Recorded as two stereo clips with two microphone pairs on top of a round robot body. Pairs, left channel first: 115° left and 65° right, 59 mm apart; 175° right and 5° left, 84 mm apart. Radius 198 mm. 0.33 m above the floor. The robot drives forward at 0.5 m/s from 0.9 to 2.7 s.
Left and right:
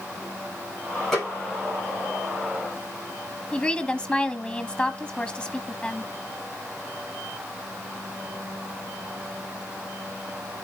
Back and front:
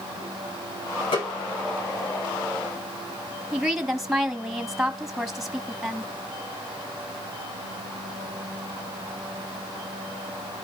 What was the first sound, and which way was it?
A snare drum, 160° right.